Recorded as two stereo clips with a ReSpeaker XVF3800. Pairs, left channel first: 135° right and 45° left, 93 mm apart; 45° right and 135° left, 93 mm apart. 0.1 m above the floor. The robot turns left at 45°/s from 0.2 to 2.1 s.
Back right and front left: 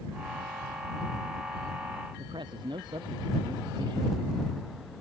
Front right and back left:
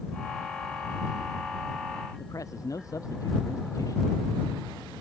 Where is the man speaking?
10° left.